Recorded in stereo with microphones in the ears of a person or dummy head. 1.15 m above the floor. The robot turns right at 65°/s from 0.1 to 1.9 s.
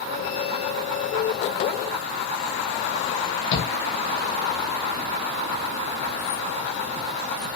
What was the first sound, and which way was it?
A shout, 65° left (ahead or behind).